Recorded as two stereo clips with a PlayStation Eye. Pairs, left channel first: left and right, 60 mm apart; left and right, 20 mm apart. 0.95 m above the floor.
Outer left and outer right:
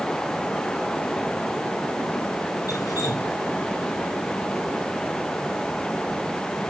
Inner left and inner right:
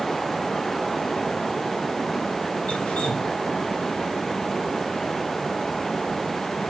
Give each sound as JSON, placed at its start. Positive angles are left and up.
{"t": 2.7, "sound": "dripping", "side_deg": 80, "distance_m": 7.0}